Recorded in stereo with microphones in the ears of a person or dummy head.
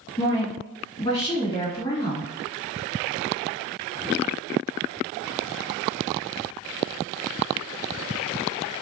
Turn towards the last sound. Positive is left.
turn(degrees=25)  # may be behind; listen again after turning